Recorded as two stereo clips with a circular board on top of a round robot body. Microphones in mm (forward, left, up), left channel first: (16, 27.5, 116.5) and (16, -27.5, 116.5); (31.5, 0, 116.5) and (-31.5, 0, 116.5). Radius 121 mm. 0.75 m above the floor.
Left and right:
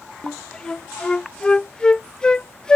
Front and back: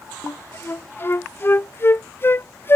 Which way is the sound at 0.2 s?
25° left.